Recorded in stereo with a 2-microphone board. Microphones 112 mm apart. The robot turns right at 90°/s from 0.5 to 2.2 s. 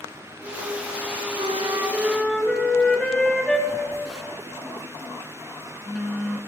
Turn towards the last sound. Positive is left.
turn(degrees=0)  # may be behind; listen again after turning